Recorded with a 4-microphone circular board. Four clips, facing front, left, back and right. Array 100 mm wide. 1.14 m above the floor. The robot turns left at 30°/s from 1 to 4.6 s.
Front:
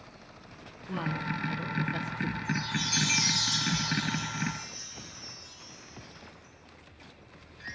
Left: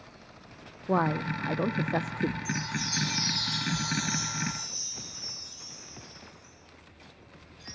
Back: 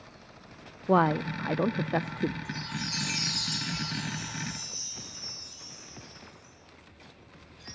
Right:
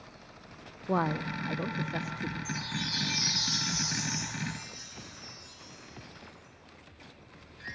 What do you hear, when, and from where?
0.9 s a woman speaking: 175° left, 0.6 m; by 2.4 s 135° left, 0.6 m
2.5 s a chime: 25° left, 0.6 m; by 7.8 s 40° right, 0.6 m